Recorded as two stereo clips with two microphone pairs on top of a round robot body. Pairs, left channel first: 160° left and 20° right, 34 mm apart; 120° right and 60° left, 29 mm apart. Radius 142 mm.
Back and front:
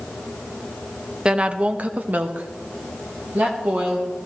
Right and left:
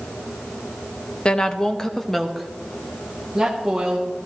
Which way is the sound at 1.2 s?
70° right.